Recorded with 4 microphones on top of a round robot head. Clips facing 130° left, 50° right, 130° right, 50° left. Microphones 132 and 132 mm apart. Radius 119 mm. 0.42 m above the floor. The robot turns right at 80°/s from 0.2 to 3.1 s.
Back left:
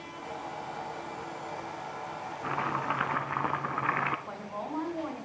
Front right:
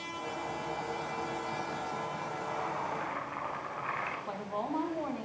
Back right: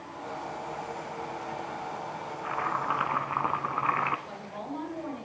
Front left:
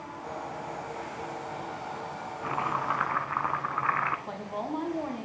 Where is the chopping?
105° left, 1.3 m; by 4.2 s 160° left, 1.3 m.